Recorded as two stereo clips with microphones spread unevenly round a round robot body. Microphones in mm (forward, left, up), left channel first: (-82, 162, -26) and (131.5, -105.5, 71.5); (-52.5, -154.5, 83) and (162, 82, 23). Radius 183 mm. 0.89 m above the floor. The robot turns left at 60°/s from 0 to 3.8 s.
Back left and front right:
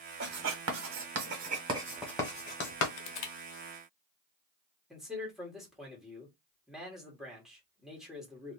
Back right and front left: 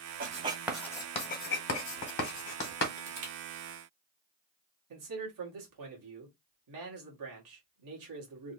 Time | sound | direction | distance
0.2 | writing | 20° right | 0.7 m
3.0 | crushing | 110° left | 0.7 m
4.9 | a man speaking | 40° left | 1.7 m